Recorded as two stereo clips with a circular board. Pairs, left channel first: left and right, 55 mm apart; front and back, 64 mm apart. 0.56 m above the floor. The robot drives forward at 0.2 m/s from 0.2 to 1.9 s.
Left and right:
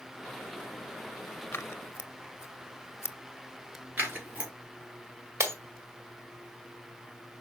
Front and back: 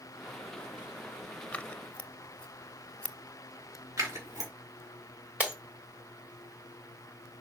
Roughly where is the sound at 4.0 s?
Behind right.